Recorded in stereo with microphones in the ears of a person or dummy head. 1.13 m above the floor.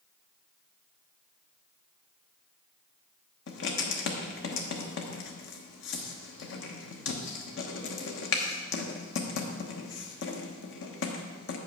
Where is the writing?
65° left (ahead or behind), 1.1 m.